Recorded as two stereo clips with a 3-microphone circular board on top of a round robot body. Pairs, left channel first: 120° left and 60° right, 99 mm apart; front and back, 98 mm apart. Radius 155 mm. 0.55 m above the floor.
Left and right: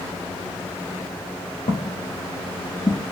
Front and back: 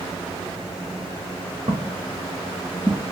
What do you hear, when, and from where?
1.7 s footsteps: 125° left, 1.0 m; by 3.0 s 100° left, 0.5 m